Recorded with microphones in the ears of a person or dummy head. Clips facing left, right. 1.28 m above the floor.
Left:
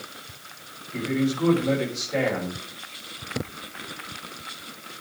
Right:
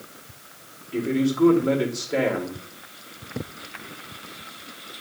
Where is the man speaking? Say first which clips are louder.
Right 3 dB; 35° right (ahead or behind), 4.5 m.